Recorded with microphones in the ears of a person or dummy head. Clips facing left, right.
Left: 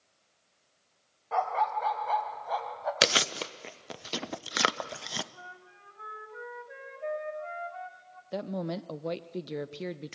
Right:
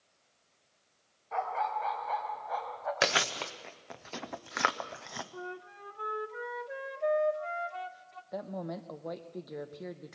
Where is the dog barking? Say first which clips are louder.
Left 4 dB; 75° left (ahead or behind), 2.5 m; by 2.9 s 65° left (ahead or behind), 3.5 m.